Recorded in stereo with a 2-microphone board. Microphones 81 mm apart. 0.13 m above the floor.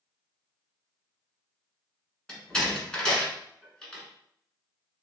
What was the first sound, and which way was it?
A door slam, 10° left (ahead or behind).